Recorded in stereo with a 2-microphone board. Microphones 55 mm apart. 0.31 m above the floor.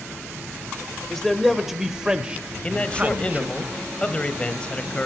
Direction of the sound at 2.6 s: 20° left (ahead or behind).